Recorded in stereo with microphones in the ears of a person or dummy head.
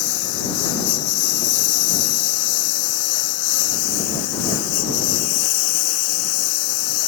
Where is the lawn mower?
70° left (ahead or behind); by 7.1 s 85° left.